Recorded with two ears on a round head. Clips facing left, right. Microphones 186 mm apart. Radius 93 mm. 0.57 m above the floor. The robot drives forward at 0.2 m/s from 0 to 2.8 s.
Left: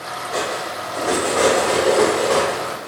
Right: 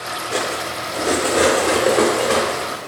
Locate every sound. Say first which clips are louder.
0.3 s cutlery clinking: even; 35° right (ahead or behind), 0.6 m; by 2.9 s 20° right (ahead or behind), 0.9 m